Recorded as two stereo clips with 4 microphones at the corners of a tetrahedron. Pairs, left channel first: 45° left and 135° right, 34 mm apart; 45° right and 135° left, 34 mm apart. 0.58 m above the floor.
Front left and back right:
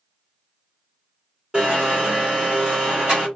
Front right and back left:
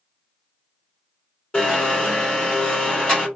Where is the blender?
90° right, 2 m.